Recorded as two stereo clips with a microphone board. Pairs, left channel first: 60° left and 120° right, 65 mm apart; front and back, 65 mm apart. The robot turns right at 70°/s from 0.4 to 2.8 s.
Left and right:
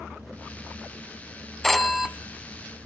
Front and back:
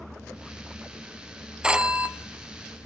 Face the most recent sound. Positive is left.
turn(degrees=-140)